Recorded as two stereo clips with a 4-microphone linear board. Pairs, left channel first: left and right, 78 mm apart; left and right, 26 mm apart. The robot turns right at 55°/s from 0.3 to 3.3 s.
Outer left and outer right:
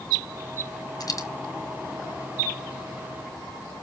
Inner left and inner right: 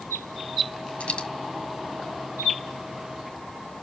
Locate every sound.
1.0 s a dropped coin: 55° left (ahead or behind), 1.5 m; by 1.3 s 45° left (ahead or behind), 1.5 m